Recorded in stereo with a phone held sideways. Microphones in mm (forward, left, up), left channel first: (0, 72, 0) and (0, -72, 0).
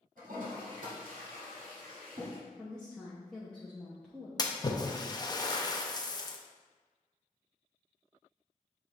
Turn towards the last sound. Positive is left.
turn(degrees=30)  # may be behind; listen again after turning